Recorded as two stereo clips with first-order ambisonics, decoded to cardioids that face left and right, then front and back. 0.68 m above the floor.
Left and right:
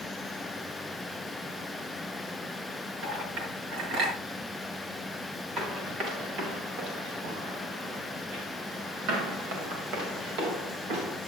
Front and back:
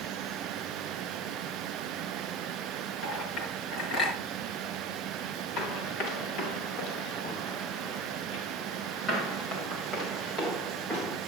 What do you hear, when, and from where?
3.0 s a clink: 60° right, 5.5 m
5.6 s running footsteps: 45° right, 4.5 m; by 11.2 s 85° right, 5.5 m